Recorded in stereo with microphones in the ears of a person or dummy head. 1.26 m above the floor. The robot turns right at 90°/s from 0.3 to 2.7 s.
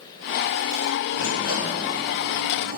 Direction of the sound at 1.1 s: 95° left.